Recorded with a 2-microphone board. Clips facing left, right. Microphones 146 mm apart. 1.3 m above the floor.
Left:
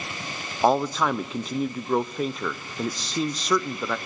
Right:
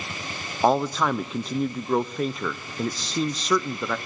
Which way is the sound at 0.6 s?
Centre (ahead or behind).